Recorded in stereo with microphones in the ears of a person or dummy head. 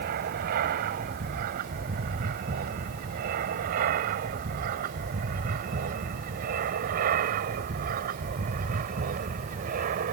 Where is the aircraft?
50° right (ahead or behind); by 10.1 s 45° right (ahead or behind).